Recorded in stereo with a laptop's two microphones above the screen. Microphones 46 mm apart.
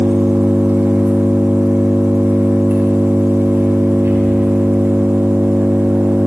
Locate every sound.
0.0 s an engine running: 55° right (ahead or behind), 9.5 m